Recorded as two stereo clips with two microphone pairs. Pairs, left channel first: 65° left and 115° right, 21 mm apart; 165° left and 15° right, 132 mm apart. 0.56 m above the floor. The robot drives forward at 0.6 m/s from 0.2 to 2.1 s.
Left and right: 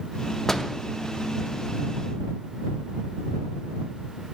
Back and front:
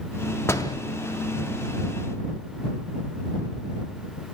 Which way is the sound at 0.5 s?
110° left.